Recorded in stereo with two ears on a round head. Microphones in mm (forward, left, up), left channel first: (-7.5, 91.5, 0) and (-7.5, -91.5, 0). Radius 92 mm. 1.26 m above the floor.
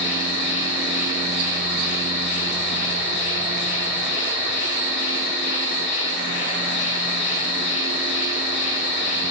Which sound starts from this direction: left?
An insect, at 0.0 s.